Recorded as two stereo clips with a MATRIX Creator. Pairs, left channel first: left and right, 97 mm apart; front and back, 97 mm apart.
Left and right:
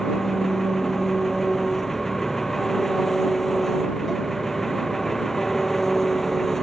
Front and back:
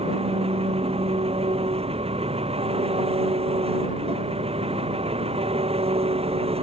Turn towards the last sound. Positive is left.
turn(degrees=175)